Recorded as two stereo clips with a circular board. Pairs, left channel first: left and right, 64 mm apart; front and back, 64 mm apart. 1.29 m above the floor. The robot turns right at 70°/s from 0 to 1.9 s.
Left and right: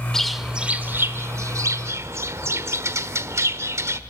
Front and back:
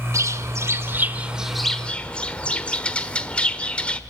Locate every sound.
0.1 s a bird: 170° left, 1.3 m; by 4.0 s 70° right, 1.3 m